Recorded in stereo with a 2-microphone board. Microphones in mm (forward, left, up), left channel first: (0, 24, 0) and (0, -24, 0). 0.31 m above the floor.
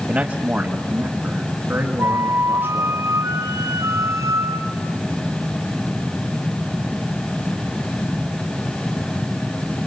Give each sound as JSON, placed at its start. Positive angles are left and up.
{"t": 0.1, "sound": "a man speaking", "side_deg": -30, "distance_m": 1.3}
{"t": 2.0, "sound": "a flute", "side_deg": -85, "distance_m": 2.5}